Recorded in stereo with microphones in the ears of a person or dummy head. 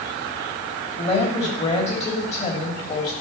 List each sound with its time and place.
1.0 s a woman speaking: 35° left (ahead or behind), 3 m